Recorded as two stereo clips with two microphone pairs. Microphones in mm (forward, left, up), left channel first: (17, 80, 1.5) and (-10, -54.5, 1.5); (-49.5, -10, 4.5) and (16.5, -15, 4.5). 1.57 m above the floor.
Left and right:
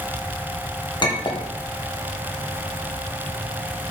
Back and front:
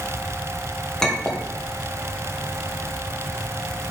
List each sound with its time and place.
1.0 s a clink: 100° left, 0.6 m